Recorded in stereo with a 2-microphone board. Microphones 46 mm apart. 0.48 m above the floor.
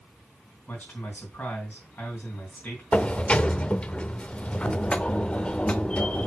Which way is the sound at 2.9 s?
25° left (ahead or behind).